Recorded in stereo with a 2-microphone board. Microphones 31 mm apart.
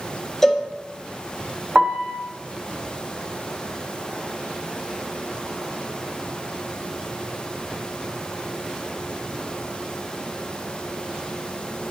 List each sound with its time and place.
0.4 s a cowbell: 10° left (ahead or behind), 0.7 m
1.8 s a piano: 35° right (ahead or behind), 0.6 m